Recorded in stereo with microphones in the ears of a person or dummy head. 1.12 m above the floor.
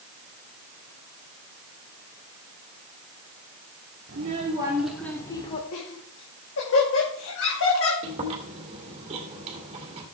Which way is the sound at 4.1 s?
45° right (ahead or behind).